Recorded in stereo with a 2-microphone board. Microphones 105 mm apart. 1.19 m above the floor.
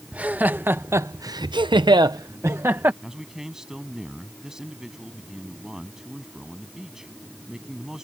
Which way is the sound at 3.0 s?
5° right (ahead or behind).